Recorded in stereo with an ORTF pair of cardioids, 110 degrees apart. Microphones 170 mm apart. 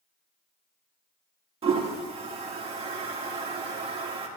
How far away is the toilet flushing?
About 1.7 m.